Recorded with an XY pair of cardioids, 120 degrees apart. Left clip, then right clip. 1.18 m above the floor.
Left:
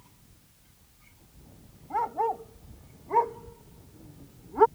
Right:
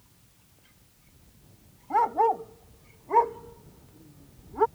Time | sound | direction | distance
1.9 | a dog barking | 35° right | ?